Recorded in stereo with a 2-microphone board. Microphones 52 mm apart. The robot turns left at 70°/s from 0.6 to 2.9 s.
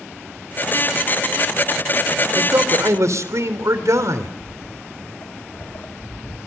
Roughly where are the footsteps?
Left.